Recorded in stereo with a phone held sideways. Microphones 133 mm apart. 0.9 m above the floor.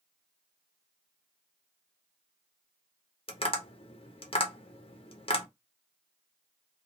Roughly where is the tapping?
Left.